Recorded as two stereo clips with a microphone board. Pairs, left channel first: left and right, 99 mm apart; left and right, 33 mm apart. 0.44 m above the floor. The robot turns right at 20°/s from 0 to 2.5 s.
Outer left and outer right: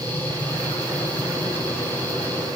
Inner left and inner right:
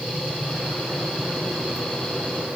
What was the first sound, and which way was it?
Only background noise.